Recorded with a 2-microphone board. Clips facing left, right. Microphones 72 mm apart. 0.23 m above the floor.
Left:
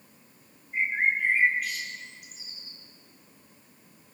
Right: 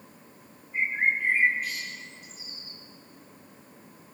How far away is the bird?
About 3.5 m.